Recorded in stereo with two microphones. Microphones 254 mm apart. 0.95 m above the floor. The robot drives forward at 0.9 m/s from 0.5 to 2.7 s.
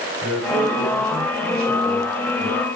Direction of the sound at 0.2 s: 65° right (ahead or behind).